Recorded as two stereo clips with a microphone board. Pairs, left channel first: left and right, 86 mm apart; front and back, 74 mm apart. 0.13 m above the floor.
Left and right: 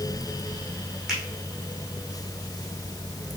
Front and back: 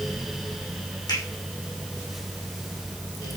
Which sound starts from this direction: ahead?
A finger snap, at 1.1 s.